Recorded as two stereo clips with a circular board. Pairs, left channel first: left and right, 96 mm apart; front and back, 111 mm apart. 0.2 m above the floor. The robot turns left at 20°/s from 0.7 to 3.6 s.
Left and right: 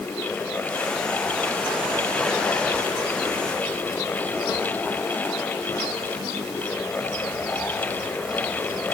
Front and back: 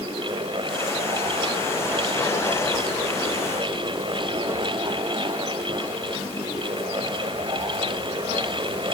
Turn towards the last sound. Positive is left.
No sound to turn to.